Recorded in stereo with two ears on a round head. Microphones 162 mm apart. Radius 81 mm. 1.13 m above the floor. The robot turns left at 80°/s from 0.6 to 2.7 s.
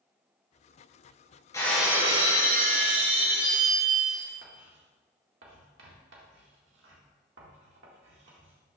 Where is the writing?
75° right (ahead or behind), 1.8 m.